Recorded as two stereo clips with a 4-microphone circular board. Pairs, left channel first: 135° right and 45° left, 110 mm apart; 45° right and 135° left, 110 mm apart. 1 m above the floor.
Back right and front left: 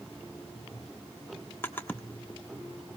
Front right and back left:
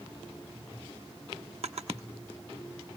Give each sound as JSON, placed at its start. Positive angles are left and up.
{"t": 1.6, "sound": "a drawer", "azimuth_deg": 155, "distance_m": 1.2}